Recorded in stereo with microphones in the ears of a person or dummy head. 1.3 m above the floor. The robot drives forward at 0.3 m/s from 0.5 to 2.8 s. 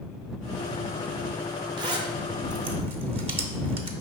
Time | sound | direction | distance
1.8 | a zipper | 20° right (ahead or behind) | 0.7 m